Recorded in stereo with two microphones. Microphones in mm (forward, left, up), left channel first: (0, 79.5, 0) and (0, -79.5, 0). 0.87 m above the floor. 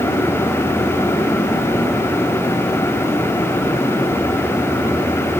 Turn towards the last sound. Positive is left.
No sound to turn to.